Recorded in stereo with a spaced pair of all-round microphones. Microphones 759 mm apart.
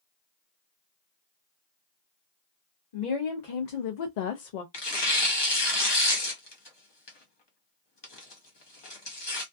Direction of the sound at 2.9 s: 55° left (ahead or behind).